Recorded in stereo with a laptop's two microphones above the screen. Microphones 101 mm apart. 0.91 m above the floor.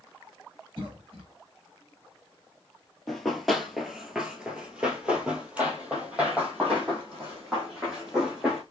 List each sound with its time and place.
0.8 s a cough: 55° right (ahead or behind), 1.0 m
3.1 s running footsteps: centre (ahead or behind), 1.0 m; by 8.6 s 10° right (ahead or behind), 3 m